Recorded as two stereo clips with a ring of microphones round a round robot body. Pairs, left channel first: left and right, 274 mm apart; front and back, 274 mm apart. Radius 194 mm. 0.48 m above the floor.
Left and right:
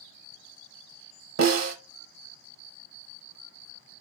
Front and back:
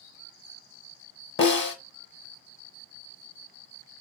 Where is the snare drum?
55° right, 0.8 m.